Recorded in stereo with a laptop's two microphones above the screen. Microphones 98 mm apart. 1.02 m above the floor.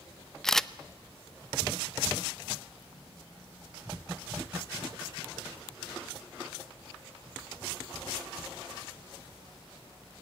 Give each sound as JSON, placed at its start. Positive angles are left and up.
{"t": 0.4, "sound": "a camera shutter", "side_deg": 5, "distance_m": 0.6}